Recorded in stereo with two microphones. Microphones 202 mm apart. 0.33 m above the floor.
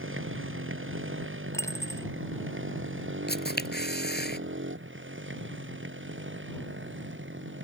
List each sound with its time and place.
0.0 s a motorcycle: 80° right; by 7.7 s 70° right (ahead or behind)
1.5 s a dropped coin: 15° left (ahead or behind)
3.3 s a camera shutter: 55° left (ahead or behind)